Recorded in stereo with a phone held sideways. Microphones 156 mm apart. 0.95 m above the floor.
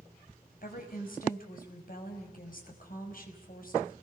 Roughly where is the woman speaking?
Left.